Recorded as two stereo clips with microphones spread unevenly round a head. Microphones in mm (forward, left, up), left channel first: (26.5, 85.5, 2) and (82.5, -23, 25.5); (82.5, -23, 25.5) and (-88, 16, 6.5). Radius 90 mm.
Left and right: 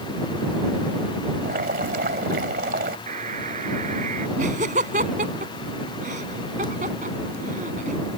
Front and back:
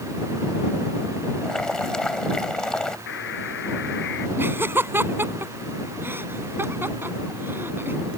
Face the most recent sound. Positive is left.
turn(degrees=-115)